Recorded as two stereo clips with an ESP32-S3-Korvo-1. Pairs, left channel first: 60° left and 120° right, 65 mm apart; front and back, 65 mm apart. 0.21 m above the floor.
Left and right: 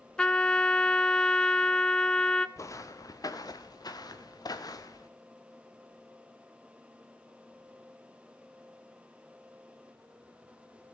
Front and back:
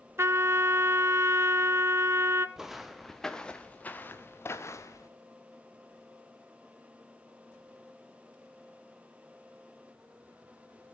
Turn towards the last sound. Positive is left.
turn(degrees=35)